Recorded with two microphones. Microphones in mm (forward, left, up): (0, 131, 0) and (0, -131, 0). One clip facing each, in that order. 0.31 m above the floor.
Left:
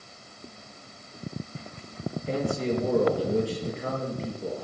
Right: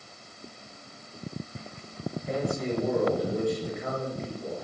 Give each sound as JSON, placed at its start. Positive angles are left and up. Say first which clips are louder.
{"t": 2.3, "sound": "a man speaking", "louder": "left 2 dB", "side_deg": 30, "distance_m": 6.0}